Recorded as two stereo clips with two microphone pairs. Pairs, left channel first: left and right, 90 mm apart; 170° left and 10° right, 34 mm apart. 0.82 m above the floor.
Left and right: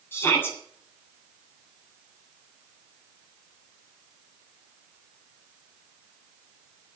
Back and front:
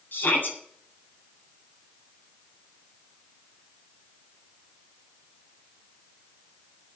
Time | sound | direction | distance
0.1 | a shout | 155° left | 7 m